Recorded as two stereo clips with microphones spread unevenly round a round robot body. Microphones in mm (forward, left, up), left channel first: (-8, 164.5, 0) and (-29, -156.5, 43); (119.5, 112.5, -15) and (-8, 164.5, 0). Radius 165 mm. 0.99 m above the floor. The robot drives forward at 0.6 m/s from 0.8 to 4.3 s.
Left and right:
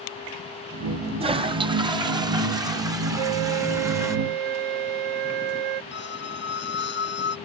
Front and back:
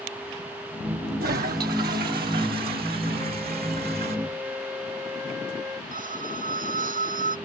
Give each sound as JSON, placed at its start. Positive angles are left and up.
{"t": 1.2, "sound": "a toilet flushing", "azimuth_deg": -170}
{"t": 3.2, "sound": "a flute", "azimuth_deg": -100}
{"t": 5.9, "sound": "a squeak", "azimuth_deg": 145}